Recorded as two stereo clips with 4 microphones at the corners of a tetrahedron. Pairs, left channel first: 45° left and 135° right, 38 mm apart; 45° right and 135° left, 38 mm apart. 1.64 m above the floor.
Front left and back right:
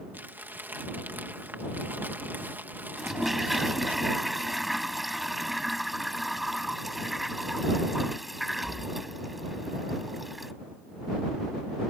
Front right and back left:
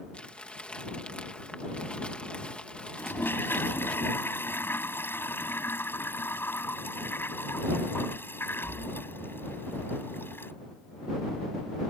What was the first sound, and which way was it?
Crumpling, 105° right.